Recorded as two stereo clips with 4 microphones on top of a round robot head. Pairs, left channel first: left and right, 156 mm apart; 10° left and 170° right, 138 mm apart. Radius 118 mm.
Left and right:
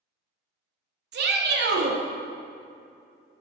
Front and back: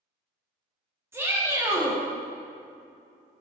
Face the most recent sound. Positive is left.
turn(degrees=-95)